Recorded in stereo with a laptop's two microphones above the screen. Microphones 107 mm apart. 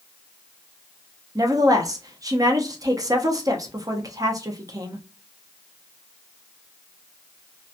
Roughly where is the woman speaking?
Right.